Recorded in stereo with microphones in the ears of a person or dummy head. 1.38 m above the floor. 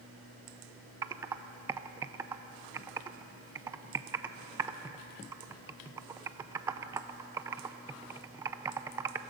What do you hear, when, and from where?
1.0 s typing on a keyboard: 15° right (ahead or behind), 0.5 m